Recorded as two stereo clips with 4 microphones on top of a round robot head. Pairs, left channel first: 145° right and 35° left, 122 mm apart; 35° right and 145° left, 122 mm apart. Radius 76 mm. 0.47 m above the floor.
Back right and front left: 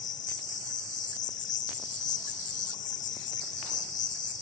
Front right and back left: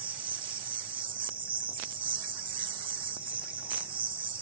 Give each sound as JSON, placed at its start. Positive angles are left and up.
{"t": 0.0, "sound": "an insect", "azimuth_deg": -165, "distance_m": 1.1}